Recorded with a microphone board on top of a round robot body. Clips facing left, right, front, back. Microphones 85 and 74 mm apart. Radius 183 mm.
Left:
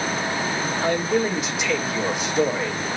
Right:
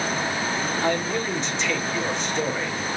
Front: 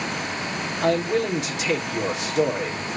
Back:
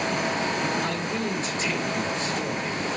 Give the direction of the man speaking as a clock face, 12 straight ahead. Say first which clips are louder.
Left 5 dB, front 6 dB; 12 o'clock.